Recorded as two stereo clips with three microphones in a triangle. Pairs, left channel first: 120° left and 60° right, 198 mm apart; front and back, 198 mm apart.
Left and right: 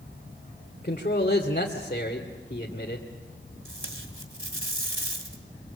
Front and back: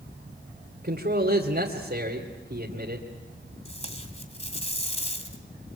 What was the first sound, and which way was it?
A man speaking, 160° left.